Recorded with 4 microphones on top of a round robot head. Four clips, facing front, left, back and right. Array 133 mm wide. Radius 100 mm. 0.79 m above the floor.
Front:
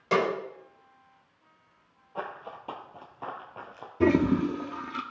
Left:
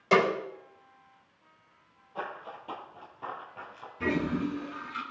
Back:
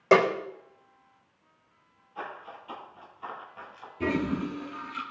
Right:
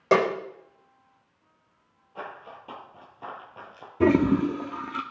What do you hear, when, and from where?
0.1 s a snare drum: 140° right, 2.5 m
2.1 s running footsteps: 15° left, 1.7 m; by 3.9 s 25° right, 1.4 m
4.0 s a toilet flushing: 70° right, 0.6 m